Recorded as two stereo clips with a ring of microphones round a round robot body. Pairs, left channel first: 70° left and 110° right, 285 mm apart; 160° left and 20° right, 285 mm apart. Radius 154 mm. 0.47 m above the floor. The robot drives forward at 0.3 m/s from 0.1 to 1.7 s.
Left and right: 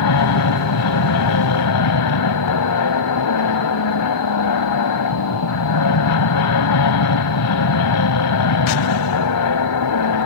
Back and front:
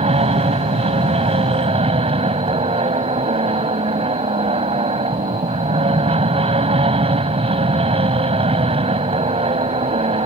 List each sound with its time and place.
0.0 s an aircraft: 45° left